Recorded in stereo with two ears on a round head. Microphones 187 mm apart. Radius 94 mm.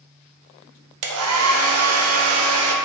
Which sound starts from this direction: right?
A hair dryer, at 1.0 s.